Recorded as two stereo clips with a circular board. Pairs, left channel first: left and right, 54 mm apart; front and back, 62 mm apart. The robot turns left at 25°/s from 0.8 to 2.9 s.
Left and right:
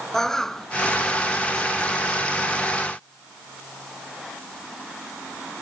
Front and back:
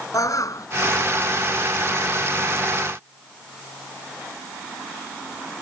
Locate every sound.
0.1 s a bird: 10° left